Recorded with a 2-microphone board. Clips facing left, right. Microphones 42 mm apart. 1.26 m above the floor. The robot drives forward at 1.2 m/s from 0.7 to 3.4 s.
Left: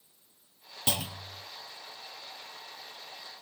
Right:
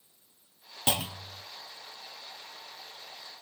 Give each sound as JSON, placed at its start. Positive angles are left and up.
{"t": 0.9, "sound": "a clunk", "side_deg": -25, "distance_m": 0.5}